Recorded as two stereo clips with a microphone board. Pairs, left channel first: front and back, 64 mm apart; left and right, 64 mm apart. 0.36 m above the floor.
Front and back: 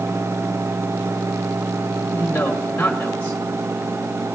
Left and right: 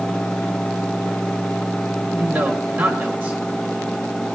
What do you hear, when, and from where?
2.1 s a man speaking: 50° right, 1.4 m